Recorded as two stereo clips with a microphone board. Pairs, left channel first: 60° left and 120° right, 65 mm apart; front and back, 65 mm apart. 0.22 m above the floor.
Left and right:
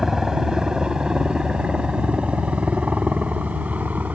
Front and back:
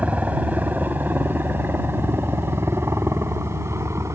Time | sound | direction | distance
0.0 | a helicopter | 165° left | ?